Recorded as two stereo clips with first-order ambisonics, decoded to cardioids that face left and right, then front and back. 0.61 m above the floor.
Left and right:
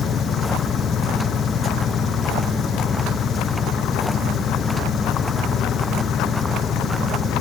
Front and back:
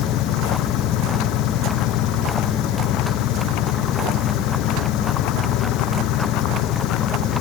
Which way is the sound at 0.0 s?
30° left.